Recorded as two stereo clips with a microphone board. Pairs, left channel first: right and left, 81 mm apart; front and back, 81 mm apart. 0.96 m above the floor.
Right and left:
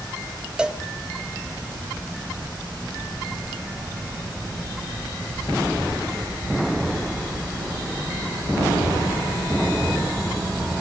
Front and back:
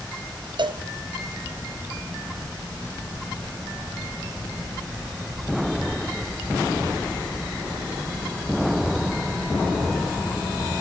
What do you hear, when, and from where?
0.6 s a cowbell: 170° left, 1.0 m